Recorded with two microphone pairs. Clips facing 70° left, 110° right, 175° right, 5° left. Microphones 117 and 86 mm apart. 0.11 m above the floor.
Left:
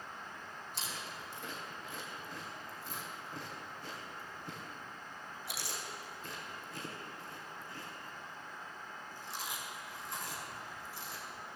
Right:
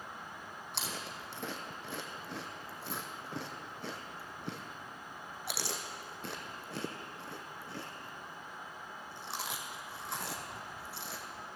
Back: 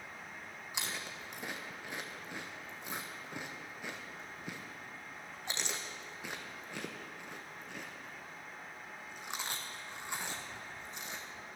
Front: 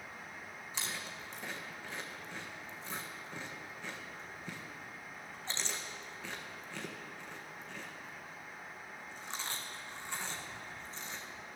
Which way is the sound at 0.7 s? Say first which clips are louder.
Right 4 dB, back 1 dB; 100° right.